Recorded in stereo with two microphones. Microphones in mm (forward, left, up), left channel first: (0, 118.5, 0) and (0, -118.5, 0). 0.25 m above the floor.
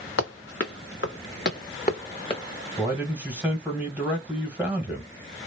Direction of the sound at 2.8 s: 5° right (ahead or behind).